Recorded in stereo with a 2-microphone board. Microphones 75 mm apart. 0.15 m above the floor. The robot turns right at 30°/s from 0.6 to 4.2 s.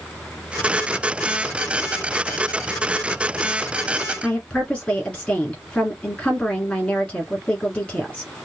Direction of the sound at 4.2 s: 15° left (ahead or behind).